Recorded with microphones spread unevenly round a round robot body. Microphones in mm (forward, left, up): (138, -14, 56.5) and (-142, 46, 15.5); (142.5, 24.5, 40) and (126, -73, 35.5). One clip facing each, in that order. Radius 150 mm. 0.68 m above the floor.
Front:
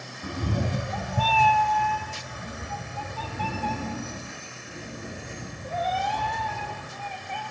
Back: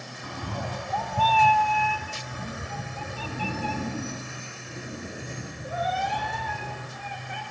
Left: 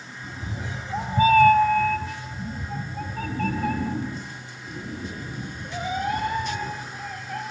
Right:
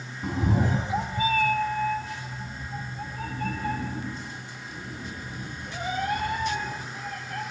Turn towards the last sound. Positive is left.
turn(degrees=90)